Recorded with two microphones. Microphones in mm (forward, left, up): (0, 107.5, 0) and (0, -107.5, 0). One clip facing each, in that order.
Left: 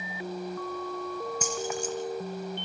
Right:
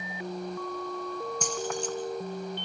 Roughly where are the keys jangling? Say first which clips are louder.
Even; centre.